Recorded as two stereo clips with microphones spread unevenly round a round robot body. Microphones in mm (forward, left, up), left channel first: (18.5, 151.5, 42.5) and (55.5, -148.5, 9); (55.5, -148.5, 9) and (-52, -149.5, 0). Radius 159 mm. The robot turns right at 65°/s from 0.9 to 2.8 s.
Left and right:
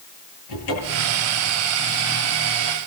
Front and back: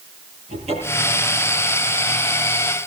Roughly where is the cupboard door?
Behind left.